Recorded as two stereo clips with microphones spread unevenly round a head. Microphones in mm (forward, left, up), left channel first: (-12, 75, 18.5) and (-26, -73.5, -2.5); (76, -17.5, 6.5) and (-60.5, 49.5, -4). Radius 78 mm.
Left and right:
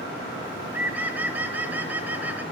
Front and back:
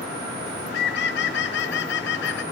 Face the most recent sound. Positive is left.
turn(degrees=-20)